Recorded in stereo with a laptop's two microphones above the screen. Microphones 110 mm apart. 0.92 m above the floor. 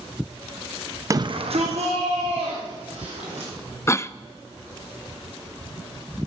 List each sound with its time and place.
1.1 s a shout: 30° right (ahead or behind), 0.7 m; by 3.5 s 80° right, 4 m
3.9 s a cough: 25° left (ahead or behind), 0.6 m